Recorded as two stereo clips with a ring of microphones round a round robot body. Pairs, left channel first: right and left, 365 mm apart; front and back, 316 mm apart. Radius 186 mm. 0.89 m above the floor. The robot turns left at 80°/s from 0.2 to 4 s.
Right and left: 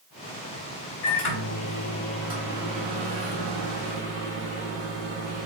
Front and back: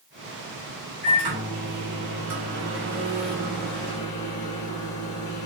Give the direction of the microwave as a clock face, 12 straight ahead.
3 o'clock.